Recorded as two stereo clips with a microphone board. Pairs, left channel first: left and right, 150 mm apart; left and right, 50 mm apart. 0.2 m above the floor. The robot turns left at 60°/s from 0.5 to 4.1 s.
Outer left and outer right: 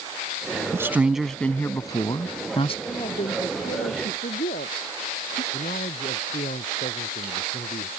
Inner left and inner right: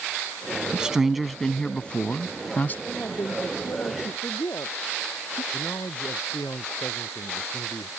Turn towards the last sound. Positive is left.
turn(degrees=60)  # may be behind; listen again after turning